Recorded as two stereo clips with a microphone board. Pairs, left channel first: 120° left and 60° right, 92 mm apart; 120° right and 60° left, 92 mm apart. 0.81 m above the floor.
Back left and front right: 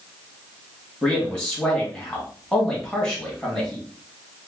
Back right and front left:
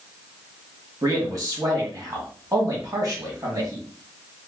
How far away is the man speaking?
About 1.2 m.